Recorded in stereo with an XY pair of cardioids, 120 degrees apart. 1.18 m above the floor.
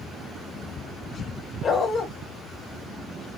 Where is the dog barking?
45° left, 2.0 m.